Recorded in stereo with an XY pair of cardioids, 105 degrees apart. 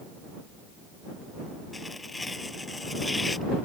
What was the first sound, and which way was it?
Tearing paper, 20° left.